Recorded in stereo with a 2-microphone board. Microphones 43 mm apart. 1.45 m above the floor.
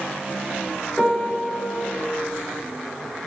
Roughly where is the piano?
Centre.